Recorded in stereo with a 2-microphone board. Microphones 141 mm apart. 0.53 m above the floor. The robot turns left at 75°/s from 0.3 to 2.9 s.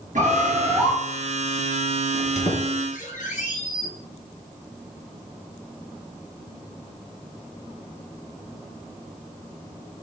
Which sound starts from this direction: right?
A bird, at 0.1 s.